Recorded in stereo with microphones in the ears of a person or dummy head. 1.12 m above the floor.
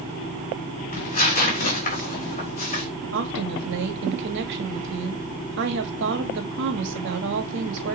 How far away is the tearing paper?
About 3 m.